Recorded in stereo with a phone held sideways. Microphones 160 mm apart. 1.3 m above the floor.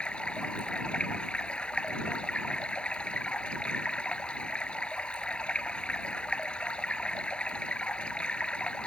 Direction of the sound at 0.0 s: 5° left (ahead or behind).